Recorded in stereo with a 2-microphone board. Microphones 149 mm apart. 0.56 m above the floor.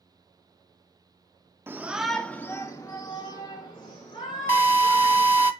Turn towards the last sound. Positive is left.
turn(degrees=-15)  # may be behind; listen again after turning